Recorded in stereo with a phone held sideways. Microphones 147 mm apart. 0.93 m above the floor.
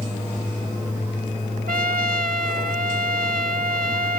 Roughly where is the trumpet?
Right.